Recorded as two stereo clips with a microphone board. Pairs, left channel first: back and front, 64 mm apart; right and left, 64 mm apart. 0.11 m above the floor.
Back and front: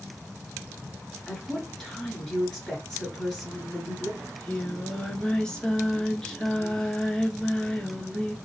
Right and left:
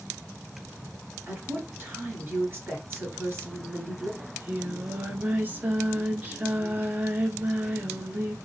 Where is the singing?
110° left, 0.8 m.